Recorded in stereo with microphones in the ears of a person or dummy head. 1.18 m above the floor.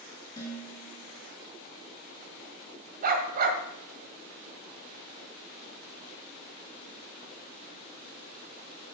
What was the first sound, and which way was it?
Dishes clattering, 20° left (ahead or behind).